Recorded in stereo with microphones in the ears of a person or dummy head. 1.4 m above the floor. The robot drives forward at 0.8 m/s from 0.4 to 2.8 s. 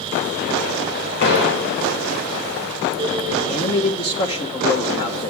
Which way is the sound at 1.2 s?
65° left (ahead or behind).